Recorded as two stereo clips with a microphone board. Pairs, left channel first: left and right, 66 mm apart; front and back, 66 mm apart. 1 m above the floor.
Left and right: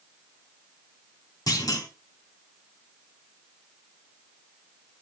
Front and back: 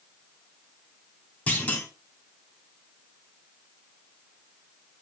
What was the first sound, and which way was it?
A clunk, 65° left.